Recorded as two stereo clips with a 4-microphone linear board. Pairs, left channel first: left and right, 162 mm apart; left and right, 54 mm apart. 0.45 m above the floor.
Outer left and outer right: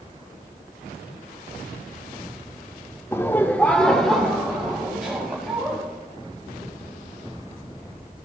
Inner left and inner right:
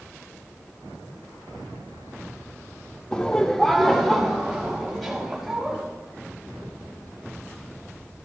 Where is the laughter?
15° left (ahead or behind), 0.7 m; by 5.8 s 5° right (ahead or behind), 3 m.